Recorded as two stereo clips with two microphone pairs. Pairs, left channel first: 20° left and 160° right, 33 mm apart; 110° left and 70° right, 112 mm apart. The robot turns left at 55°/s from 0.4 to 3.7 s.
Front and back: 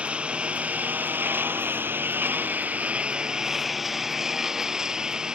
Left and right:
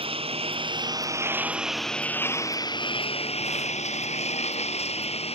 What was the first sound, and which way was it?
A lawn mower, 105° right.